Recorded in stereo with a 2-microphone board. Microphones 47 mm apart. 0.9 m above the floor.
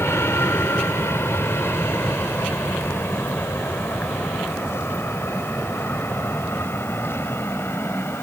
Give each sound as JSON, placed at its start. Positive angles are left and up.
{"t": 0.0, "sound": "an aircraft", "side_deg": 65}